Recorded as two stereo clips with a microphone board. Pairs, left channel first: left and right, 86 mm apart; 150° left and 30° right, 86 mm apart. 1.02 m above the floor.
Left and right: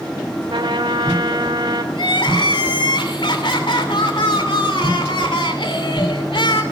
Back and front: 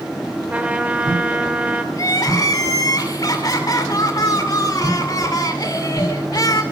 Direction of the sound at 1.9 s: 105° left.